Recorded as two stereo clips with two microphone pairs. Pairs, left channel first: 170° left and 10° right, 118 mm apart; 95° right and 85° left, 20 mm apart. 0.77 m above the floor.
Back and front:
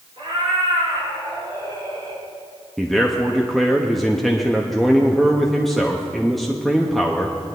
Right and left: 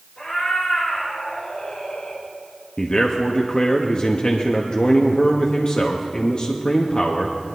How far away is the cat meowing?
About 4 m.